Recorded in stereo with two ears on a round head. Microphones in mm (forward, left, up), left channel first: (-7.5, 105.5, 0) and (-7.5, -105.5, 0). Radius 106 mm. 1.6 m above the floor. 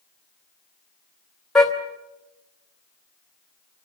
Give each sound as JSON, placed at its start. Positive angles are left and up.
{"t": 1.6, "sound": "a car horn", "side_deg": 0, "distance_m": 2.5}